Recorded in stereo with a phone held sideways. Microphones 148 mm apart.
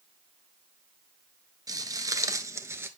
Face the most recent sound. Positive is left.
turn(degrees=-15)  # may be behind; listen again after turning